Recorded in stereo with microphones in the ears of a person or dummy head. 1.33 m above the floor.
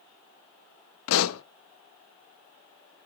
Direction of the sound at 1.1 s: 75° left (ahead or behind).